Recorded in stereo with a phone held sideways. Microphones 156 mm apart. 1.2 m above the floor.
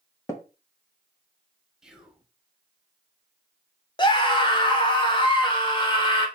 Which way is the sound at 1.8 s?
5° right (ahead or behind).